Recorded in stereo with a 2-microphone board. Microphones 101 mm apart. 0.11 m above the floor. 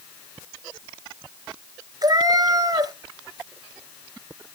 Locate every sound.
2.0 s a cat meowing: 40° right (ahead or behind), 1.0 m